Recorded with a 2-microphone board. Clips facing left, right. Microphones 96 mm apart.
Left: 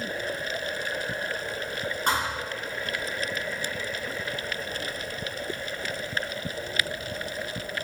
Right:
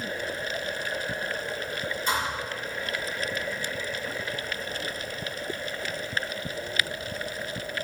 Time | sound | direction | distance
2.1 | a thud | 70° left (ahead or behind) | 4.5 m